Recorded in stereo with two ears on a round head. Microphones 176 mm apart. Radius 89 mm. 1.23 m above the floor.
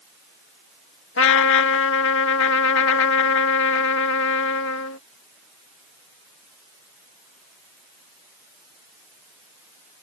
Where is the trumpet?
75° left (ahead or behind).